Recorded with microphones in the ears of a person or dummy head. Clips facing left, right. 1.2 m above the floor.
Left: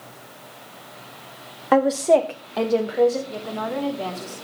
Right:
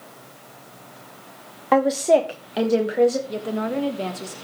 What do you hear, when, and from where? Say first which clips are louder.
1.7 s a woman speaking: even; 10° left (ahead or behind), 0.9 m; by 3.2 s 20° right (ahead or behind), 1.4 m
3.3 s a woman speaking: right 3 dB; 25° right (ahead or behind), 1.5 m